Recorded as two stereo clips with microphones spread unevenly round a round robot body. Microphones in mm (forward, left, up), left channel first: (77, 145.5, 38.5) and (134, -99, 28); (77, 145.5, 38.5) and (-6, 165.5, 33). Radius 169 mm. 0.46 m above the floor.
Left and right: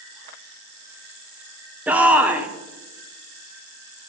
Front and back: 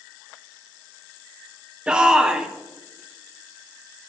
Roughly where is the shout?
Behind right.